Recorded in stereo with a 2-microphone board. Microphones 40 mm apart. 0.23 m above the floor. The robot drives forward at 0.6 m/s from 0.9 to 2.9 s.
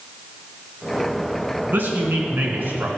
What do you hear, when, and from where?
1.7 s a man speaking: 60° right (ahead or behind), 3 m; by 2.9 s 55° right (ahead or behind), 3 m